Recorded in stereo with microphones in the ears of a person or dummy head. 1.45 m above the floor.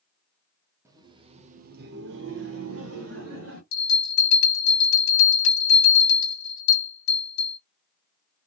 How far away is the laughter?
About 0.8 m.